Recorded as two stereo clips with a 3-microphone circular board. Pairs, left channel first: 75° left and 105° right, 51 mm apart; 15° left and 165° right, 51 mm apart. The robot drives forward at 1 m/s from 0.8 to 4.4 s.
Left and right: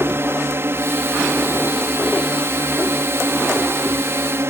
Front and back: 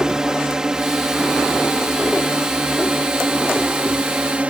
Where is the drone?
90° right; by 4.5 s 105° right.